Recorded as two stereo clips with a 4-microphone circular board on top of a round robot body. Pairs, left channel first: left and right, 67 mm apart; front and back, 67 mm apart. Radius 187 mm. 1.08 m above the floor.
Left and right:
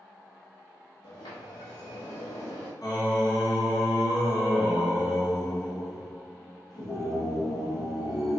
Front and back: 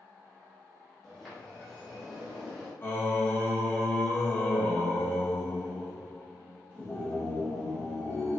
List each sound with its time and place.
1.0 s a sliding door: 90° left, 0.7 m
2.8 s singing: 65° left, 1.4 m